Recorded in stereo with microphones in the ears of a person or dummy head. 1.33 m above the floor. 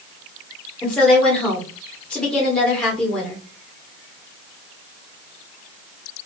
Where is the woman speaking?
10° left (ahead or behind), 1.3 m.